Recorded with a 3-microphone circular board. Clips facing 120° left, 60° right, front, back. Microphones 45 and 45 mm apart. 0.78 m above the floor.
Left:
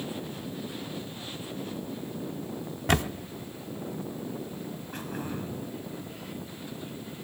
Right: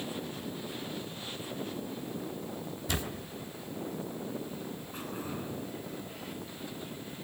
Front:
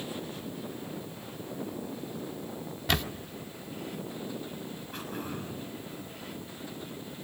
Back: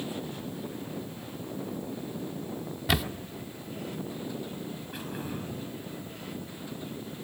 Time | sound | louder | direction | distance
2.9 | a camera shutter | left 10 dB, back 1 dB | 95° left | 1.0 m
4.9 | throat clearing | left 4 dB, even | 95° left | 6 m